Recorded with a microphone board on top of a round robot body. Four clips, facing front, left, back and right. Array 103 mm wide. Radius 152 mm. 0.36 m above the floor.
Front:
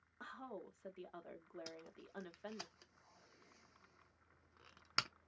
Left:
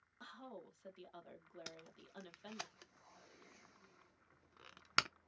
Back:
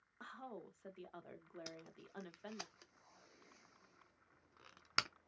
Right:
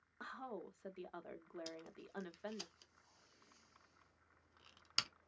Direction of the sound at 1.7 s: 100° left.